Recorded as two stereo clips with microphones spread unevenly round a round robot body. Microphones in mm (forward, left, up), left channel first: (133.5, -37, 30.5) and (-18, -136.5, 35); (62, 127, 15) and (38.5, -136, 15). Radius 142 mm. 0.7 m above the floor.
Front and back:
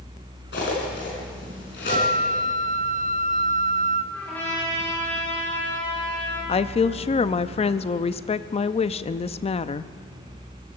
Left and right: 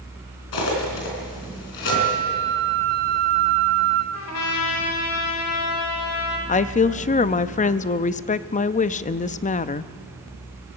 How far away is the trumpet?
About 3.5 m.